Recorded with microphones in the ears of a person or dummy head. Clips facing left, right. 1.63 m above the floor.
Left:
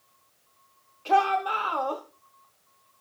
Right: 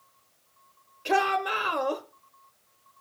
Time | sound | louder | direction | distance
1.1 | a shout | left 2 dB | 15° right (ahead or behind) | 0.8 m